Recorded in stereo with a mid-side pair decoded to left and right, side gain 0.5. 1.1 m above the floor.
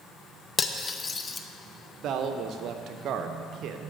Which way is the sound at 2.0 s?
65° right.